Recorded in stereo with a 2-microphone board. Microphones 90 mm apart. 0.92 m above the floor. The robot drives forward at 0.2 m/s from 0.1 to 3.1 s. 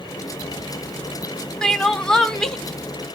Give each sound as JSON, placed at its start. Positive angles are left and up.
{"t": 1.6, "sound": "crying", "side_deg": 10, "distance_m": 0.7}